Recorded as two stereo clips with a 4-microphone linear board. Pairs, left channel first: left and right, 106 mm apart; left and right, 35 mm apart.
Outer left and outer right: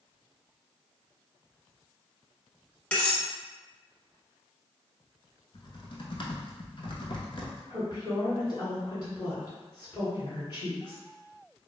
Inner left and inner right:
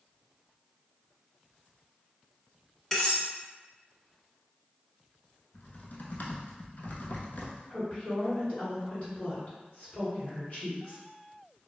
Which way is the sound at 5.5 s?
55° left (ahead or behind).